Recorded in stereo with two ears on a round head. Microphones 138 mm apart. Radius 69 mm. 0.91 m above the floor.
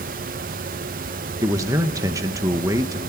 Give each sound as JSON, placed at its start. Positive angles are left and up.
{"t": 1.4, "sound": "a man speaking", "side_deg": -20, "distance_m": 0.8}